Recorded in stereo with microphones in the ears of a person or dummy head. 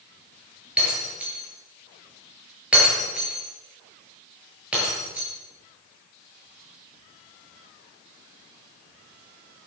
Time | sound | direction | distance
0.8 | breaking glass | 5° right (ahead or behind) | 7.5 m